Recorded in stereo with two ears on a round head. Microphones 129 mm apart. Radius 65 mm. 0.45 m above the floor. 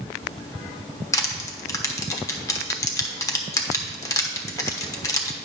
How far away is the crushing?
About 1.0 m.